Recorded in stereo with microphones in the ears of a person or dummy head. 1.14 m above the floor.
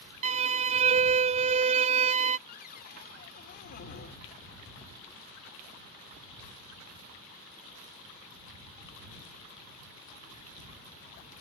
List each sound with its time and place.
0.2 s a violin: 30° right (ahead or behind)
2.5 s a cupboard door: 45° left (ahead or behind)